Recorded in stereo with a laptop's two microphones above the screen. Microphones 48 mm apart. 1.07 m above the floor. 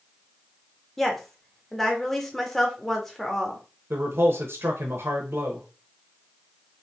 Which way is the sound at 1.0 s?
5° left (ahead or behind).